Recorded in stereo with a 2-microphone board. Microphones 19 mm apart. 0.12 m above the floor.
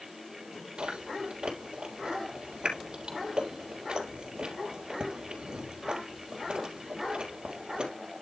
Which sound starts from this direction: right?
Chewing, at 0.8 s.